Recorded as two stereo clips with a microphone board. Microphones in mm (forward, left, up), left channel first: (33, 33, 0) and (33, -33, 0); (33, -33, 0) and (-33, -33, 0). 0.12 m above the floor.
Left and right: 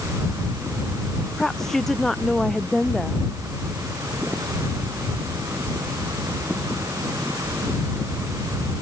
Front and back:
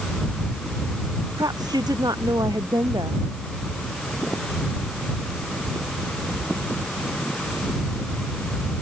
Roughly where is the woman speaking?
Behind.